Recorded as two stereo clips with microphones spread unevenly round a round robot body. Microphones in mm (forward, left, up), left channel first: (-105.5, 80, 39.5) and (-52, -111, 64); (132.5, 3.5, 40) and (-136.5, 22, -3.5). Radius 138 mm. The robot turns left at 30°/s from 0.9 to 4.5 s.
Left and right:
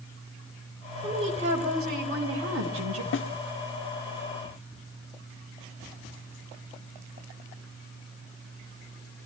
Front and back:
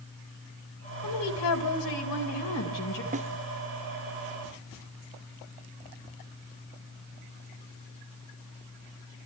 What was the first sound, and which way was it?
A woman speaking, straight ahead.